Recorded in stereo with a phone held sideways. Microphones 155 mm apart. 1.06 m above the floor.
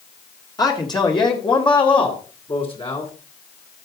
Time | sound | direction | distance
0.6 | a man speaking | 25° left (ahead or behind) | 2 m